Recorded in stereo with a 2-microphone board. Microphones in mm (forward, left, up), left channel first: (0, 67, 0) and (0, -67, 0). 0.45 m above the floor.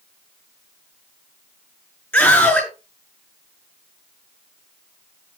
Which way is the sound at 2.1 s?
10° left (ahead or behind).